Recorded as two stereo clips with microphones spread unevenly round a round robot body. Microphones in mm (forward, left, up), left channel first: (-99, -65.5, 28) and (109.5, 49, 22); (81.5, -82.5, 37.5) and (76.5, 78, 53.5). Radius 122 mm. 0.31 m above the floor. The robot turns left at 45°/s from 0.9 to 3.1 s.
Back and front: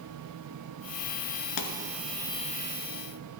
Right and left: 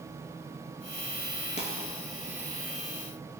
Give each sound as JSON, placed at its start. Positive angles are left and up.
{"t": 1.6, "sound": "a pop", "azimuth_deg": -155, "distance_m": 0.8}